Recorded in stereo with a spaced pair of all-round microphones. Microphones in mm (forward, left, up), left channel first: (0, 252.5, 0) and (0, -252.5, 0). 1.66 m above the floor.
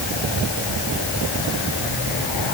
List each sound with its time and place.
Only background noise.